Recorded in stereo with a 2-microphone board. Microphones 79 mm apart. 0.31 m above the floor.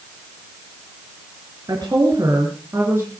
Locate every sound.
1.7 s a woman speaking: 55° right (ahead or behind), 4 m; by 3.1 s 30° right (ahead or behind), 4 m